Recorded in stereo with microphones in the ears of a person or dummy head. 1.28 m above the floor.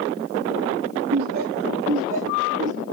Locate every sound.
1.1 s laughter: 60° right (ahead or behind), 2.5 m; by 2.8 s 40° right (ahead or behind), 3.5 m